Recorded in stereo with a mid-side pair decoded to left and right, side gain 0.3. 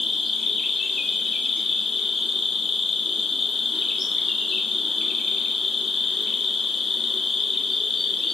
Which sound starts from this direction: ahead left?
An insect, at 0.0 s.